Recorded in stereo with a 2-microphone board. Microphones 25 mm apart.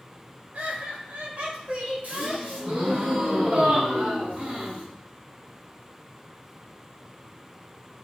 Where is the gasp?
70° right (ahead or behind), 3 m.